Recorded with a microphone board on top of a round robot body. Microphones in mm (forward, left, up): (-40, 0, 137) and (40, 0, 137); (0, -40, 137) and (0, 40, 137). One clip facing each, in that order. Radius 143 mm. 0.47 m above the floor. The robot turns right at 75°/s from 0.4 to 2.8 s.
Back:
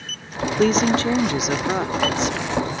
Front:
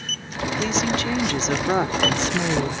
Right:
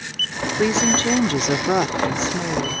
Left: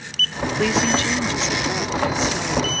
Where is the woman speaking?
165° right; by 2.8 s straight ahead.